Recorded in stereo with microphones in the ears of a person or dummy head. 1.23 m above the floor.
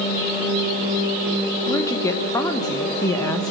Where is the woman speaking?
20° left (ahead or behind), 1.0 m.